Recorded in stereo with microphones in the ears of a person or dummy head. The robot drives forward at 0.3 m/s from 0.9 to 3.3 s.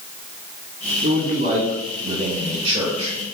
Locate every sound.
1.0 s a man speaking: 40° right (ahead or behind), 1.0 m; by 3.1 s 25° right (ahead or behind), 1.5 m